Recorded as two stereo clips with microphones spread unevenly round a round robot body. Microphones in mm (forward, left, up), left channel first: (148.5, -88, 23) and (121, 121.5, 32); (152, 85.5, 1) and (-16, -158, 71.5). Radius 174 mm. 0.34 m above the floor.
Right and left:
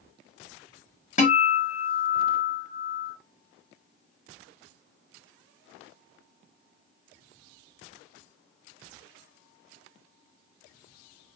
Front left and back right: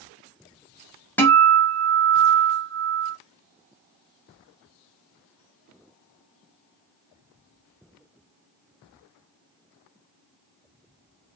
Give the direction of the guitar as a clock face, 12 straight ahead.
1 o'clock.